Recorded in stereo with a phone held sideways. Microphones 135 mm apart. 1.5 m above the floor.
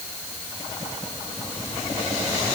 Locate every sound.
Only background noise.